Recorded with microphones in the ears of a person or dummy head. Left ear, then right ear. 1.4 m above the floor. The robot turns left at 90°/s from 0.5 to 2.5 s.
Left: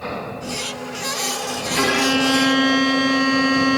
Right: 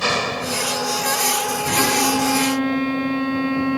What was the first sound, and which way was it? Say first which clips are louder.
An engine running: right 8 dB; 115° right.